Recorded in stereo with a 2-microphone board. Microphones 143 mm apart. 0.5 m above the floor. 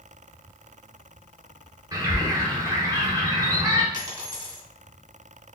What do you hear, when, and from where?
1.9 s a bird: 25° right (ahead or behind), 1.1 m
3.9 s a dropped coin: 30° right (ahead or behind), 1.9 m